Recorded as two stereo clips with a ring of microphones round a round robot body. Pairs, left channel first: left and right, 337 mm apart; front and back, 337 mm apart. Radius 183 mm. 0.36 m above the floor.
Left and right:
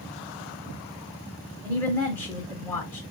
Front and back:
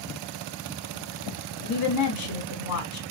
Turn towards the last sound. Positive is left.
turn(degrees=5)